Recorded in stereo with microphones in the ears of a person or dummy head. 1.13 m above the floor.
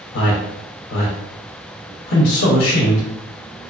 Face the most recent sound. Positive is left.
turn(degrees=60)  # may be behind; listen again after turning